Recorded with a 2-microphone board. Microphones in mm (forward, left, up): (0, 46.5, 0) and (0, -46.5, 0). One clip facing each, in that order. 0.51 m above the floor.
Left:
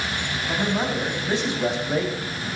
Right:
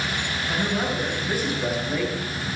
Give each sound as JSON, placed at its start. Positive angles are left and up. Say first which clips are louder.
{"t": 0.5, "sound": "a man speaking", "louder": "left 2 dB", "side_deg": 20, "distance_m": 4.0}